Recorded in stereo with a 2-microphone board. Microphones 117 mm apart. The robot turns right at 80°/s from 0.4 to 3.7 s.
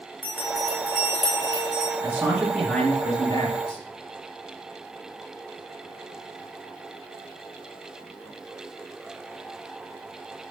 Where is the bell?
15° right, 1.9 m; by 1.9 s 105° left, 1.9 m.